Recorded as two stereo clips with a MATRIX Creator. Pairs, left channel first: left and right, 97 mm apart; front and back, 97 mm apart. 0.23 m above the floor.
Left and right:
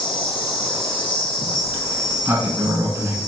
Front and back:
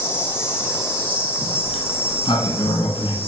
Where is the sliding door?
20° right, 0.7 m.